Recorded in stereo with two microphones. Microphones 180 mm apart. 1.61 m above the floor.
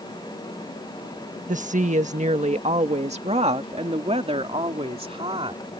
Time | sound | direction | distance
1.5 | a woman speaking | 45° right (ahead or behind) | ?